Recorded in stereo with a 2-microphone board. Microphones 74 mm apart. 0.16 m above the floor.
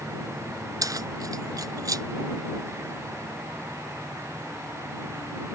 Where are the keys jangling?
55° right (ahead or behind).